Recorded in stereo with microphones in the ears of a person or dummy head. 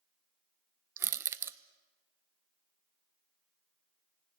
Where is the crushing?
15° right (ahead or behind), 0.7 m.